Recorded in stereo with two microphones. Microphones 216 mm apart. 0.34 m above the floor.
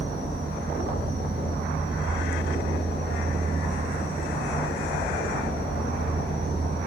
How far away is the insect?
About 1.3 m.